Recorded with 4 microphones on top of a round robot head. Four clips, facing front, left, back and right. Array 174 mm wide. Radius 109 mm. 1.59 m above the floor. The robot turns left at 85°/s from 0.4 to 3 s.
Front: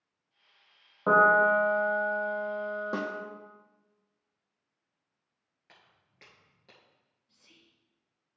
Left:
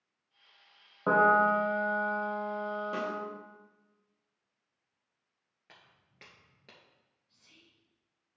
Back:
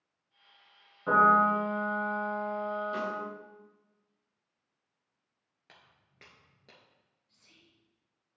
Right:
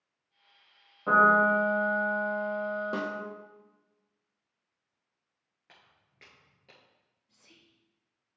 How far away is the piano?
About 1.6 m.